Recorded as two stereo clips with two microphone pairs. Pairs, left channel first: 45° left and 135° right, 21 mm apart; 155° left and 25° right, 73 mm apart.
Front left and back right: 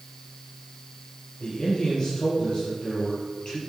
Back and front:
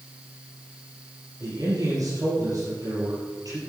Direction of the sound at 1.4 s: Straight ahead.